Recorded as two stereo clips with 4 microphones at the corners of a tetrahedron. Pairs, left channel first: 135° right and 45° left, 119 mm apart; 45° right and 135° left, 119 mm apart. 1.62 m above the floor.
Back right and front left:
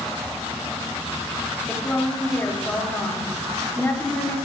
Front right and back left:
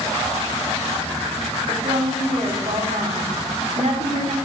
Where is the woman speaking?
150° left, 1.5 m.